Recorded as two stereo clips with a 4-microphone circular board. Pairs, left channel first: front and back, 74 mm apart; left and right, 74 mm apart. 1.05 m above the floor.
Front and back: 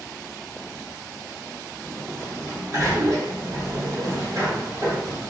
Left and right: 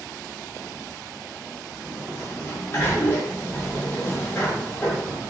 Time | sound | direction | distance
1.8 | a sliding door | 145° left | 1.1 m